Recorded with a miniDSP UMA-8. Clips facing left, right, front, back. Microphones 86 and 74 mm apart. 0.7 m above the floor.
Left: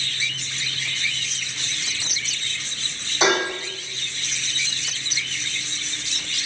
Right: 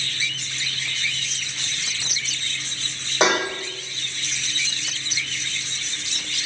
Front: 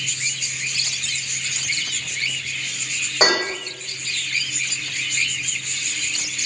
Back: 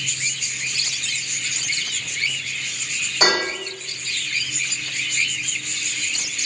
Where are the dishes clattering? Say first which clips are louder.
Even, front 1 dB; 55° right, 1.8 m.